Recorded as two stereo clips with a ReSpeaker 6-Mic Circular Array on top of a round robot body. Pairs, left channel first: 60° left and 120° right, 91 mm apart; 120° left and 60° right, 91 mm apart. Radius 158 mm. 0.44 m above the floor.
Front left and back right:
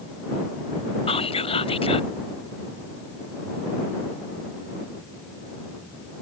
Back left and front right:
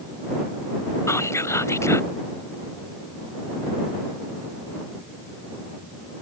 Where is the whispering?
60° left.